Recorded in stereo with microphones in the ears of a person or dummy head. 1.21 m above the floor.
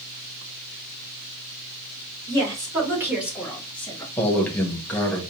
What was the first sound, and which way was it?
A woman speaking, 20° right (ahead or behind).